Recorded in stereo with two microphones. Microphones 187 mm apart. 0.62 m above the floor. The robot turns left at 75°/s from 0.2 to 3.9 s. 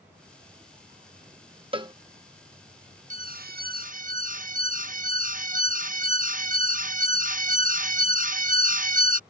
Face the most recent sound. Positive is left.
turn(degrees=-115)